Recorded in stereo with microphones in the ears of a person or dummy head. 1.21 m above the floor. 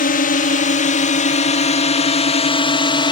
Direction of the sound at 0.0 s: 40° left (ahead or behind).